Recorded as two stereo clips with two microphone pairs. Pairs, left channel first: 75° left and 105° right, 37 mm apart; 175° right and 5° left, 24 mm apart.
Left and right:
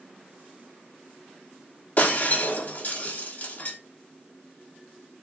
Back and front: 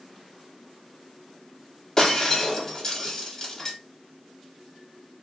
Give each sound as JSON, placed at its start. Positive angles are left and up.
{"t": 2.0, "sound": "breaking glass", "azimuth_deg": 115, "distance_m": 1.6}